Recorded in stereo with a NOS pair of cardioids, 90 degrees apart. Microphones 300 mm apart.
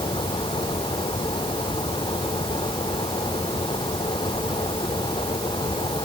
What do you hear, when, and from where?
0.0 s a fan: 15° left